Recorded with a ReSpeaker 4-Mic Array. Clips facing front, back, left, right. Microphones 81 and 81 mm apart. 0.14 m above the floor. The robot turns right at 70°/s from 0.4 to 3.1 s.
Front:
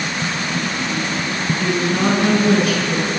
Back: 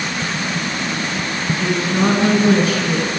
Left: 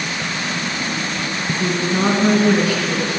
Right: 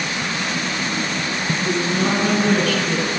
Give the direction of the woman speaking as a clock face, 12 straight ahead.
9 o'clock.